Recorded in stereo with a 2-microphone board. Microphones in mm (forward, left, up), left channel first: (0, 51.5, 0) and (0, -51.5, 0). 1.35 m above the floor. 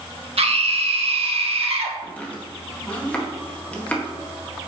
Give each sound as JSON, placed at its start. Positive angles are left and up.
{"t": 0.4, "sound": "a scream", "side_deg": -70, "distance_m": 1.8}
{"t": 2.0, "sound": "chopping", "side_deg": 15, "distance_m": 1.7}